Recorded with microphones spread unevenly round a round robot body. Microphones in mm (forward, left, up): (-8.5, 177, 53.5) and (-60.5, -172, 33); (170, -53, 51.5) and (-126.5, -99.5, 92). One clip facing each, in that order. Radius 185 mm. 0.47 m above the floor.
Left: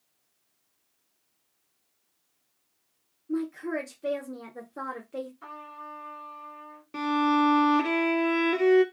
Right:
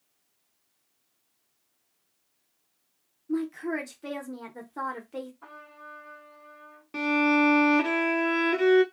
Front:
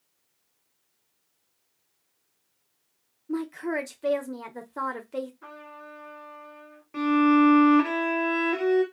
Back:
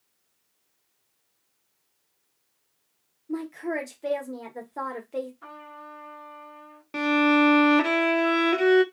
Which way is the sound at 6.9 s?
175° right.